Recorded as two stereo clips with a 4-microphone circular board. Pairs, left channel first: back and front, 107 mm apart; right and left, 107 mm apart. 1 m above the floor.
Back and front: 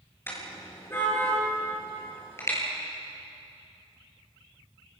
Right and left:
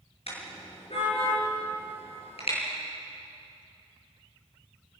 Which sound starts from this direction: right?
A car horn, at 0.3 s.